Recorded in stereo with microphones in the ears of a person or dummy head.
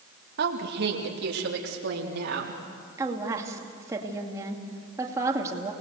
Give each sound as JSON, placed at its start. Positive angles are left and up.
{"t": 0.4, "sound": "a woman speaking", "side_deg": -55, "distance_m": 2.0}
{"t": 3.0, "sound": "a woman speaking", "side_deg": -15, "distance_m": 2.5}